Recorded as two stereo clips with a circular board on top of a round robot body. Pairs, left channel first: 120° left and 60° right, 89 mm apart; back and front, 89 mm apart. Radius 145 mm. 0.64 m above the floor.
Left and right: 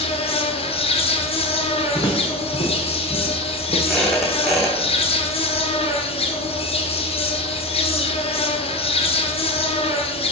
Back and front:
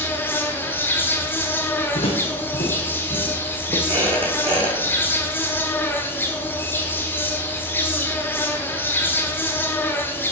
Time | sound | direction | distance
0.0 | an insect | 110° left | 1.0 m
1.9 | footsteps | 170° left | 1.8 m
3.9 | a squeak | 25° left | 3.5 m